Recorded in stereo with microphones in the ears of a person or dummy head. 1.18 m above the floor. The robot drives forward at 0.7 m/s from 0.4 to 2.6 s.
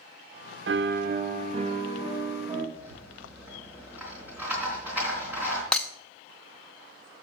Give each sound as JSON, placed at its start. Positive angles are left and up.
{"t": 0.7, "sound": "a piano", "side_deg": -60, "distance_m": 0.7}
{"t": 2.8, "sound": "a rattle", "side_deg": -15, "distance_m": 3.5}
{"t": 5.7, "sound": "breaking glass", "side_deg": 0, "distance_m": 0.6}